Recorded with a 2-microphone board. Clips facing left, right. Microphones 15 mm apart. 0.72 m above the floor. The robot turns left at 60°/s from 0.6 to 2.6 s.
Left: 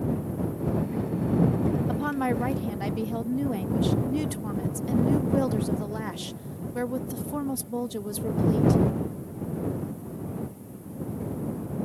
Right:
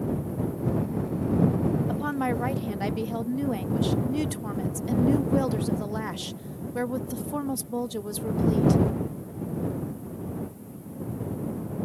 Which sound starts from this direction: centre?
A woman speaking, at 1.9 s.